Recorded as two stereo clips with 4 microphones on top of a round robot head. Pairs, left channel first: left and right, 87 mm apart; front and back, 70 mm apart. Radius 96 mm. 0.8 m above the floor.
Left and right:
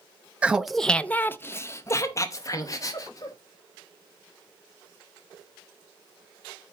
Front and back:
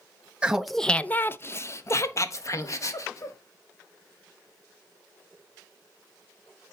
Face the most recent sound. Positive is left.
turn(degrees=40)